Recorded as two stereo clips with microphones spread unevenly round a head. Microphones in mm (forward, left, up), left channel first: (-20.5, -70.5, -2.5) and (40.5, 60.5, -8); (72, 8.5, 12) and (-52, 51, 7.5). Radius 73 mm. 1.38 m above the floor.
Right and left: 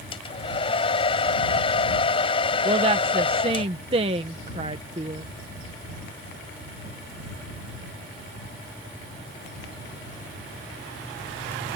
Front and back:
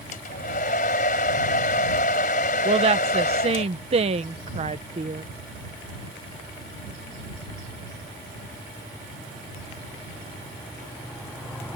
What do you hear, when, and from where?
0.1 s a hair dryer: 60° right
2.6 s a woman speaking: 120° left